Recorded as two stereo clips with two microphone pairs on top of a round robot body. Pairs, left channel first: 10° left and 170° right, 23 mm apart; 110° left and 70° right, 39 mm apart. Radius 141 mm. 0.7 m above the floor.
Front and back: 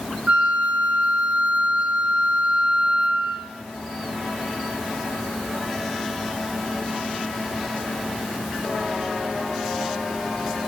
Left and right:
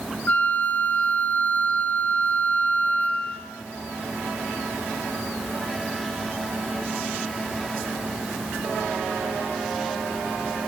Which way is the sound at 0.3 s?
160° left.